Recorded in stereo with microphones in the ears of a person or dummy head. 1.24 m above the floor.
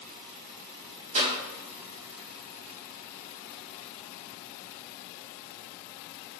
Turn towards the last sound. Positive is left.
turn(degrees=-35)  # may be behind; listen again after turning